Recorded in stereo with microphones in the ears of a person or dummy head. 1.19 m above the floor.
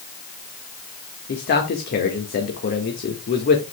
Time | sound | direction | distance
1.3 | a man speaking | 55° left (ahead or behind) | 1.7 m